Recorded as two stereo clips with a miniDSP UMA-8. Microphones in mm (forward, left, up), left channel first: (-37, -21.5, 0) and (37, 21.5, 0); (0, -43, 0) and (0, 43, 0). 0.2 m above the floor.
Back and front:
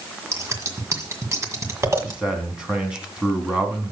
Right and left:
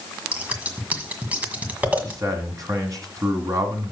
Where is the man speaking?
105° left, 1.7 m.